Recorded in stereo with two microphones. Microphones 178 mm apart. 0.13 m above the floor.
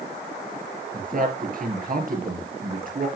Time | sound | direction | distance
0.9 | a man speaking | 50° right (ahead or behind) | 2.5 m